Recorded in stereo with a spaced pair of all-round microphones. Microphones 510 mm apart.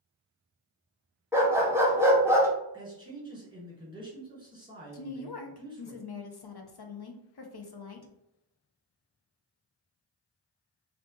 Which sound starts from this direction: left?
A woman speaking, at 4.9 s.